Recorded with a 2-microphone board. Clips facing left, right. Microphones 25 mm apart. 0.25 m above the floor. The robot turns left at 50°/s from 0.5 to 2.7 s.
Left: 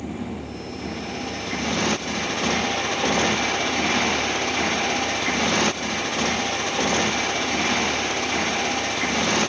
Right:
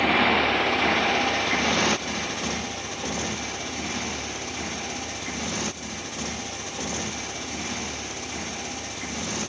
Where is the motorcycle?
80° right; by 9.5 s 45° left (ahead or behind).